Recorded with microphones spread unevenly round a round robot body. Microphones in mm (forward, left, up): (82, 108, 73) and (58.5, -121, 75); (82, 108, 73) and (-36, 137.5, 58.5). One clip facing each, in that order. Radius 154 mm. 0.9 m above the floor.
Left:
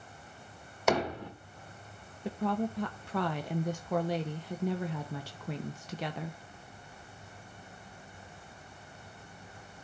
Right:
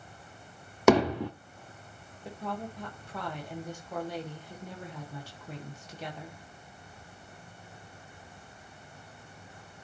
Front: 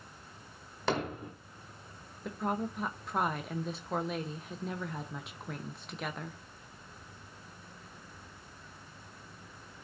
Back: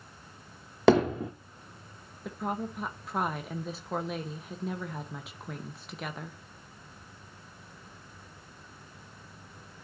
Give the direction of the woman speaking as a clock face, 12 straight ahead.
9 o'clock.